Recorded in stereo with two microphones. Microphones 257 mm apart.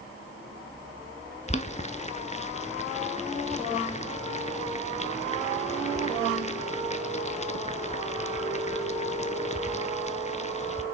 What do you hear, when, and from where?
1.5 s boiling: 30° left (ahead or behind), 0.5 m